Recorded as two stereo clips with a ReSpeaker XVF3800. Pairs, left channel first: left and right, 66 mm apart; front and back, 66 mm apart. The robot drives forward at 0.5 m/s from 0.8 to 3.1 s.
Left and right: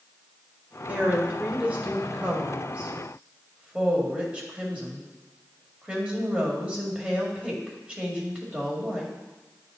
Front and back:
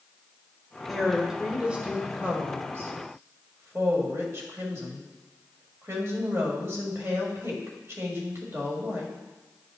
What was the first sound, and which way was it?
A woman speaking, 85° right.